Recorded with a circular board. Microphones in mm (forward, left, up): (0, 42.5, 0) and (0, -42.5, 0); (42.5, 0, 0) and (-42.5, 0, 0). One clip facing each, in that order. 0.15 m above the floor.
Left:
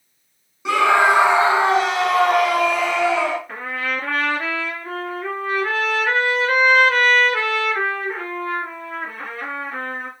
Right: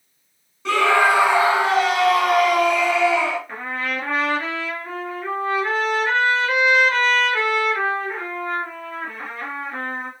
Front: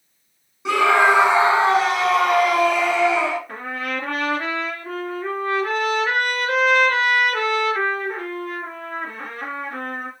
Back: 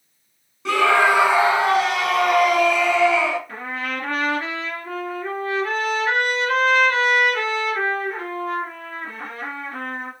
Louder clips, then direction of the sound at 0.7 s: Left 1 dB, front 1 dB; 45° left.